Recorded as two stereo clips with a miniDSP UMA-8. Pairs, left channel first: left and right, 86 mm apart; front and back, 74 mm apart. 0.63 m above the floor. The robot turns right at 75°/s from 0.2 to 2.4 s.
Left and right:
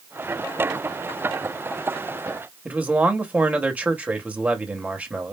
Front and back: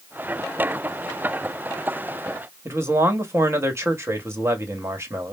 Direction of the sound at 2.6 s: 150° right.